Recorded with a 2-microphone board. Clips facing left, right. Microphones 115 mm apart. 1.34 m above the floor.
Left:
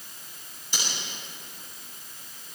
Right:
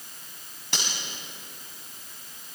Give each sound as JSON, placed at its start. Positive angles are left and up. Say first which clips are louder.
{"t": 0.7, "sound": "cutlery clinking", "louder": "right 1 dB", "side_deg": -80, "distance_m": 7.0}